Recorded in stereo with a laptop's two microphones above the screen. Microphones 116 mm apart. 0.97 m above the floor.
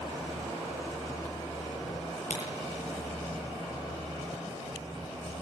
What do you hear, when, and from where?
2.3 s a crack: 80° left, 8 m